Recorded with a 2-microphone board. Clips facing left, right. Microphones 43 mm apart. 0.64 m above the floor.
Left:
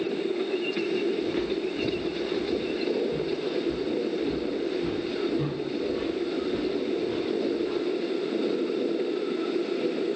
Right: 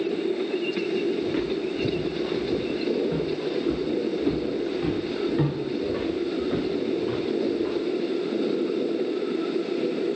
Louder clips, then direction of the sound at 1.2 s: Right 2 dB; 10° right (ahead or behind).